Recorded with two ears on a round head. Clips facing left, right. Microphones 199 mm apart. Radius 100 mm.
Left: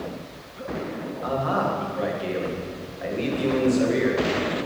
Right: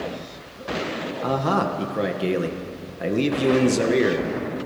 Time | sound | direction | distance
1.2 | a man speaking | 55° right (ahead or behind) | 2 m